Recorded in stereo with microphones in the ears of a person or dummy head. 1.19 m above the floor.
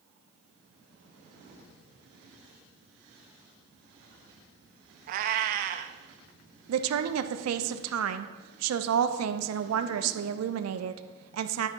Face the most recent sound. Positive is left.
turn(degrees=-85)